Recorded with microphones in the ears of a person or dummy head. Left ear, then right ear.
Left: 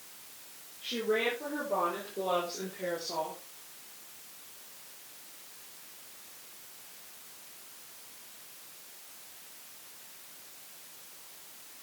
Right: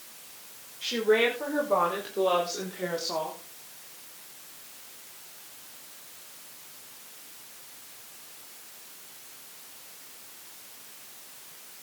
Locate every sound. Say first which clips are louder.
0.8 s a woman speaking: right 7 dB; 65° right (ahead or behind), 6 m; by 3.4 s 30° right (ahead or behind), 3.5 m